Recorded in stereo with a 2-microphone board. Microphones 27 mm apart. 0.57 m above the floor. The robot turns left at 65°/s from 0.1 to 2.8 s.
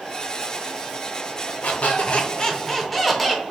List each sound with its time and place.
1.6 s a squeak: 80° left, 0.6 m; by 3.4 s 5° left, 0.6 m